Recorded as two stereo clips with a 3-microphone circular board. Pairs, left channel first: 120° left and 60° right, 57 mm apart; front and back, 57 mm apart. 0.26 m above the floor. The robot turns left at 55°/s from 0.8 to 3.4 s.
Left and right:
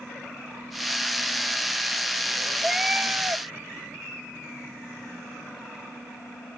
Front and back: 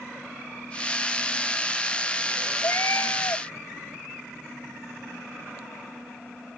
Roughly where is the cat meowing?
Ahead left.